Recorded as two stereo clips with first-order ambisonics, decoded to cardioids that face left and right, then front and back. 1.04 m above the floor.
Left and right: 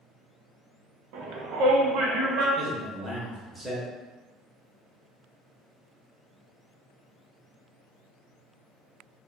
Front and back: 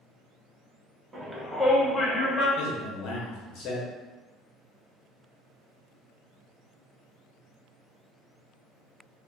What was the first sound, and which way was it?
A shout, 105° right.